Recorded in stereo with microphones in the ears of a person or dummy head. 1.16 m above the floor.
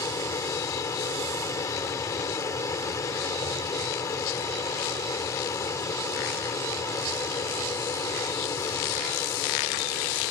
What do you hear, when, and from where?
0.0 s an aircraft: 15° left (ahead or behind)